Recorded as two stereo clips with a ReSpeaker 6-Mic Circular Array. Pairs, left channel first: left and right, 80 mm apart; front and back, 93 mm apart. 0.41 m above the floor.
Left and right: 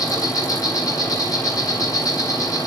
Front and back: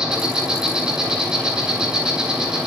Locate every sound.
0.0 s an insect: 105° left, 2.5 m